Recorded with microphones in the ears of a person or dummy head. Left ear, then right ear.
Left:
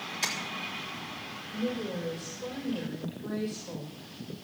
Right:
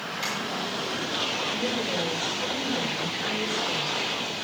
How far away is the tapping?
About 5 m.